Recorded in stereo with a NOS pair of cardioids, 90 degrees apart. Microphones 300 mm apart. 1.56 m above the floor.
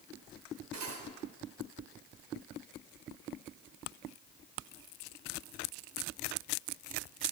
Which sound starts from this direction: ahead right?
Cutlery clinking, at 0.7 s.